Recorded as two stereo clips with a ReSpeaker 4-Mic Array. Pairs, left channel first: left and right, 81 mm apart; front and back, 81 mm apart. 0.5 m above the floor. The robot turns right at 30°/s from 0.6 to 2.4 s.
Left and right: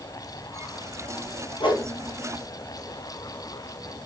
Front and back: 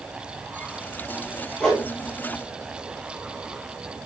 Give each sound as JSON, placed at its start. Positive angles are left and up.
{"t": 1.6, "sound": "a whoosh", "azimuth_deg": 80, "distance_m": 2.5}